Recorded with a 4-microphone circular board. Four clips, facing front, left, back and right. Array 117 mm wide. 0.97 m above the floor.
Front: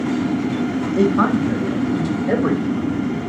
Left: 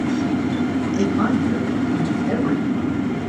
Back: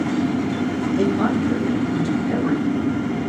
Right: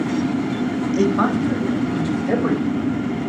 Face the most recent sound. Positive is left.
turn(degrees=-40)